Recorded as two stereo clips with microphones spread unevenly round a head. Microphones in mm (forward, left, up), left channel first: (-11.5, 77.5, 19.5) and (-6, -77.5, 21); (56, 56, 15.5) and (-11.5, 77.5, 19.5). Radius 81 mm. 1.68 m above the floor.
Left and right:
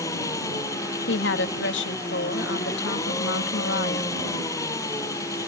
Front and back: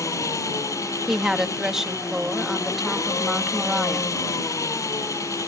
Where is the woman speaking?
80° left.